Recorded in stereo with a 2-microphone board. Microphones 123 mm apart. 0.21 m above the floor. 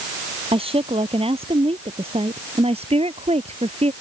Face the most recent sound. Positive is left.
turn(degrees=-50)  # may be behind; listen again after turning